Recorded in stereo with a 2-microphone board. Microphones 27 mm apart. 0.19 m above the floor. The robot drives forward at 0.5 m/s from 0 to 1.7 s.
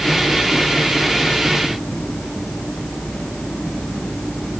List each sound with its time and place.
Only background noise.